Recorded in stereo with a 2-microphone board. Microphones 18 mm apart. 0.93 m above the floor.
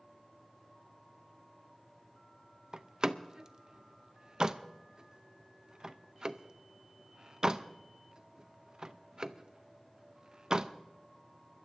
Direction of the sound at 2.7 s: 35° right (ahead or behind).